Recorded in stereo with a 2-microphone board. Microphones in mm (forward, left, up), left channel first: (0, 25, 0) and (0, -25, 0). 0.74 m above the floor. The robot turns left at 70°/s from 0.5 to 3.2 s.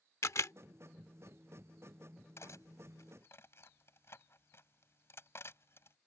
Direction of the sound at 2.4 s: 65° left (ahead or behind).